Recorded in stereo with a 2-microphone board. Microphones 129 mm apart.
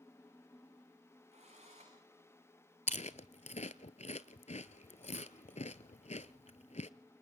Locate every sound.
1.3 s a drill: 55° right (ahead or behind), 9 m
2.9 s chewing: 65° left (ahead or behind), 0.8 m